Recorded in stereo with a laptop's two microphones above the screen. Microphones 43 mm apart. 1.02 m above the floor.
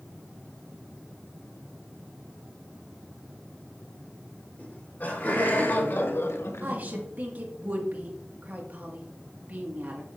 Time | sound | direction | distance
4.6 | laughter | 45° left (ahead or behind) | 3 m
6.6 | a woman speaking | 45° right (ahead or behind) | 1.3 m